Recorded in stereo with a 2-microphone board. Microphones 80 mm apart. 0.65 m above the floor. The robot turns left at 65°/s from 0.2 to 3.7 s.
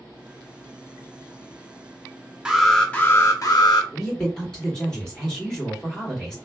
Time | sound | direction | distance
2.5 | an alarm | 165° right | 0.7 m
3.9 | a woman speaking | 10° left (ahead or behind) | 2 m